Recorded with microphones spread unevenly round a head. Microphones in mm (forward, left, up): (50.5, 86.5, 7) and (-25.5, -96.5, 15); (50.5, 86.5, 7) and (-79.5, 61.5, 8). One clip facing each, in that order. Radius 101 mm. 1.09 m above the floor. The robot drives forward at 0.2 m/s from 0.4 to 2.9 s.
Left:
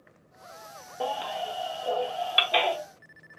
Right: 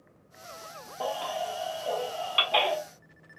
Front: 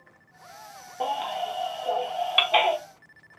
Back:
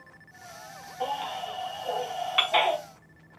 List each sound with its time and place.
1.0 s a baby crying: 15° left, 0.8 m; by 2.8 s 45° left, 0.6 m